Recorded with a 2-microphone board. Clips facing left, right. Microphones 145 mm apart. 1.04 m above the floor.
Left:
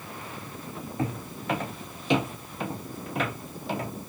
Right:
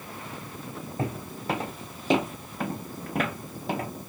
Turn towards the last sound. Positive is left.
turn(degrees=-45)  # may be behind; listen again after turning